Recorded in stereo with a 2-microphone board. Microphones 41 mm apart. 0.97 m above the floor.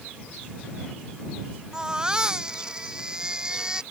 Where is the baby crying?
20° right (ahead or behind).